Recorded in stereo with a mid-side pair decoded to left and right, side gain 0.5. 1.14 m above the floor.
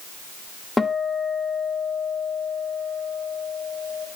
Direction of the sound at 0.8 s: 15° left.